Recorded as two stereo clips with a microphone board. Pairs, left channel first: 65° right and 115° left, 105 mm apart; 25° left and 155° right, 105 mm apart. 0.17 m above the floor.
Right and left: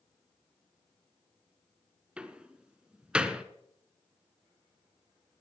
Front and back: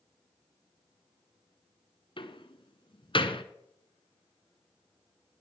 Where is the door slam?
35° left, 1.3 m.